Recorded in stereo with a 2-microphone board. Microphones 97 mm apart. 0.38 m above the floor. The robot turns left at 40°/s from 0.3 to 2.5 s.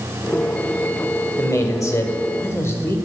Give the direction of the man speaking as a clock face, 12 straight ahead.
9 o'clock.